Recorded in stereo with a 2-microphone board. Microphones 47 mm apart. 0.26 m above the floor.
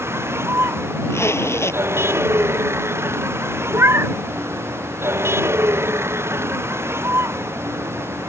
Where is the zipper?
70° left (ahead or behind).